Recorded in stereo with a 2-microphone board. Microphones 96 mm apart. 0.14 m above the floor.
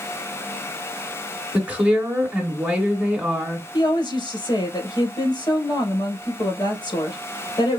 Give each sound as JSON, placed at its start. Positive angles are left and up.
{"t": 1.5, "sound": "a woman speaking", "side_deg": -15, "distance_m": 1.7}
{"t": 3.7, "sound": "a woman speaking", "side_deg": 60, "distance_m": 3.0}